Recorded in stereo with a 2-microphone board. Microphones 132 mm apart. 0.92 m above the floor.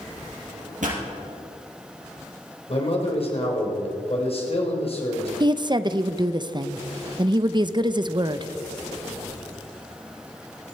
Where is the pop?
75° right (ahead or behind), 5 m.